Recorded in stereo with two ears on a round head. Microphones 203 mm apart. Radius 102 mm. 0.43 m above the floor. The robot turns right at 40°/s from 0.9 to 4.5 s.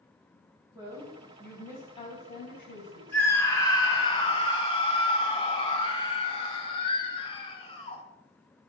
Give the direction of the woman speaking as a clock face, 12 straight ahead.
1 o'clock.